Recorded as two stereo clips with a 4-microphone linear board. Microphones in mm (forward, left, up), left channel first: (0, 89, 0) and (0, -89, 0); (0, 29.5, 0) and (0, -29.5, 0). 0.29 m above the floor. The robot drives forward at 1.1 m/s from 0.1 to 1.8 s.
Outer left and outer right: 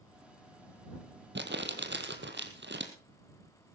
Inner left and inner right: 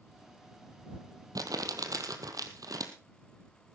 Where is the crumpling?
80° right, 2.0 m; by 2.9 s 85° right, 2.0 m.